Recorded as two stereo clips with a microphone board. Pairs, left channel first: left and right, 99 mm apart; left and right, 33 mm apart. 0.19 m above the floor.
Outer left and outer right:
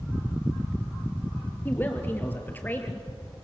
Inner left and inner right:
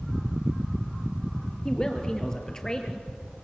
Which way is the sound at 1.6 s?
20° left (ahead or behind).